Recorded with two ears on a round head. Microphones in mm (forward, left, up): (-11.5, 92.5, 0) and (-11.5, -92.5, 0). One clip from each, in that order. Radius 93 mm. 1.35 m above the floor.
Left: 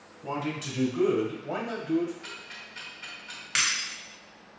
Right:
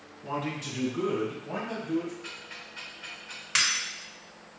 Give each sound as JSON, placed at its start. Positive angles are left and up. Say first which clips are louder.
{"t": 0.2, "sound": "a man speaking", "louder": "left 1 dB", "side_deg": 20, "distance_m": 1.3}
{"t": 2.2, "sound": "ticking", "louder": "even", "side_deg": 45, "distance_m": 1.7}
{"t": 3.5, "sound": "breaking glass", "louder": "right 1 dB", "side_deg": -5, "distance_m": 1.4}